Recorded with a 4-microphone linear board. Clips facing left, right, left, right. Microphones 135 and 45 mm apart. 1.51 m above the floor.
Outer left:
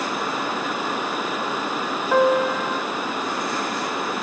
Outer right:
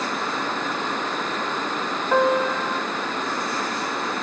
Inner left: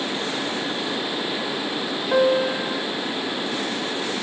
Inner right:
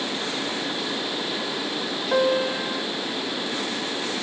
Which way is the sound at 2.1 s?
Centre (ahead or behind).